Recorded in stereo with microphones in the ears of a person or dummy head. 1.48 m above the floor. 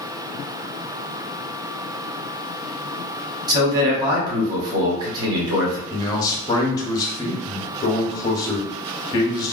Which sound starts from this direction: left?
A man speaking, at 5.9 s.